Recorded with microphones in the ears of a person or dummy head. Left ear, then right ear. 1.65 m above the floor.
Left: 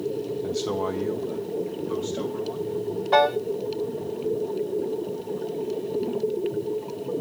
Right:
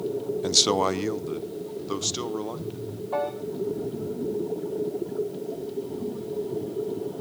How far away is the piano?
About 0.7 m.